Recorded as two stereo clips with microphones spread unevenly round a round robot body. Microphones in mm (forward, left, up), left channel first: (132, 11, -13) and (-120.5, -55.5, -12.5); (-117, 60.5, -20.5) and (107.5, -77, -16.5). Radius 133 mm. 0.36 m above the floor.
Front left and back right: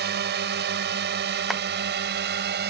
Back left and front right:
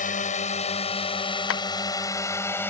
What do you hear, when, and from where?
0.0 s a drone: 170° right; by 2.7 s 130° right
1.5 s tapping: 105° left